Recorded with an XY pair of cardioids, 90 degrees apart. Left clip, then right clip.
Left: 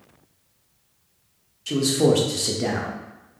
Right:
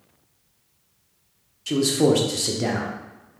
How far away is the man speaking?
About 0.8 m.